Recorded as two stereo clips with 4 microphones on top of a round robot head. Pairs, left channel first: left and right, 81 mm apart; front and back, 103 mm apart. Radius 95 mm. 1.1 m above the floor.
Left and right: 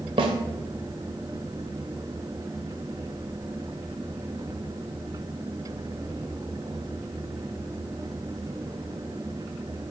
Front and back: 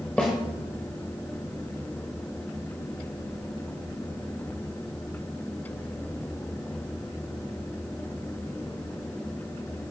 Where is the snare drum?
85° right, 1.2 m.